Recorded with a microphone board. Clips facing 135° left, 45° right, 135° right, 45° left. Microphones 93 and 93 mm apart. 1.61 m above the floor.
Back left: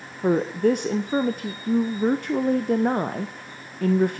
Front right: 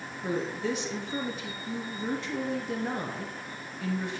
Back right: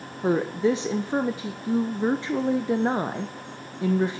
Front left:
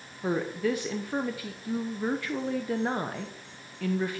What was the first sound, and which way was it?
A woman speaking, 160° left.